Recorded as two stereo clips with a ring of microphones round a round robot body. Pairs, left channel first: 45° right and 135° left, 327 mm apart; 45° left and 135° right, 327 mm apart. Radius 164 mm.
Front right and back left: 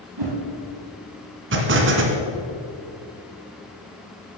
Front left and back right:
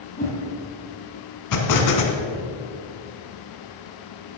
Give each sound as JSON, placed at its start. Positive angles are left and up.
{"t": 0.2, "sound": "a whoosh", "azimuth_deg": 110, "distance_m": 5.5}
{"t": 1.5, "sound": "an explosion", "azimuth_deg": 80, "distance_m": 1.9}